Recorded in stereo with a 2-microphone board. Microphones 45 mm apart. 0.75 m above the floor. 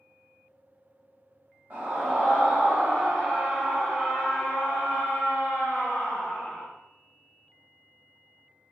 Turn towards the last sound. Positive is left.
turn(degrees=70)  # may be behind; listen again after turning